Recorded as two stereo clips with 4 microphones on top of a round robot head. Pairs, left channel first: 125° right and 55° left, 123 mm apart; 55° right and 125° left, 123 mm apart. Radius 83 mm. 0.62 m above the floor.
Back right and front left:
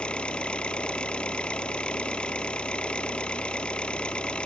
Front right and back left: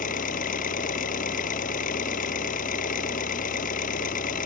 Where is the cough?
No cough in this recording.